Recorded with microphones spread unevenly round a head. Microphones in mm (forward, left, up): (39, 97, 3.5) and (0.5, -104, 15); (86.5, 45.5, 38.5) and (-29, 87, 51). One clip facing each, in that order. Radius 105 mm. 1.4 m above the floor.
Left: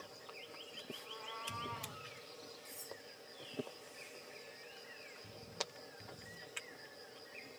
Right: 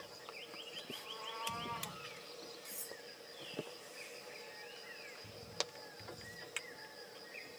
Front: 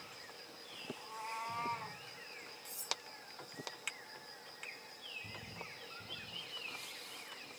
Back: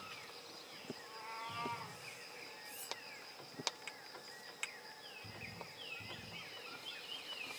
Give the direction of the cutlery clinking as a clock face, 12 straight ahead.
1 o'clock.